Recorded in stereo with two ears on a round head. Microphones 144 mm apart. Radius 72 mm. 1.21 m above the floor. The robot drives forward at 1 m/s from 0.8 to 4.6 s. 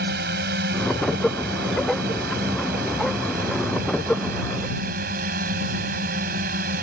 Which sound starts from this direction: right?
A drone, at 0.0 s.